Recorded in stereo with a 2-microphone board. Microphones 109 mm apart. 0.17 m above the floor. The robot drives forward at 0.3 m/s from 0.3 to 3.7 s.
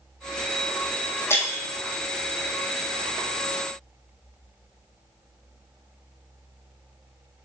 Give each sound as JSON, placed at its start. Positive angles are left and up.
{"t": 1.3, "sound": "breaking glass", "side_deg": 20, "distance_m": 3.0}